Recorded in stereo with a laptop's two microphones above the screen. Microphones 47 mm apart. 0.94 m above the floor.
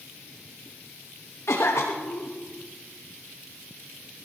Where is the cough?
65° left (ahead or behind), 1.1 m.